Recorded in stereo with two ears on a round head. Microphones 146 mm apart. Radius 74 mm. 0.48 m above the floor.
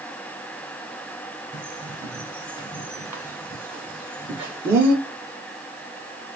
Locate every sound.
1.5 s a bird: 15° right (ahead or behind), 0.8 m